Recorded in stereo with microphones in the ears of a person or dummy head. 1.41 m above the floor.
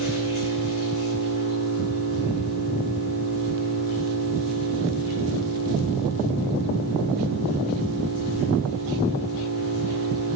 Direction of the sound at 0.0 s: 75° left (ahead or behind).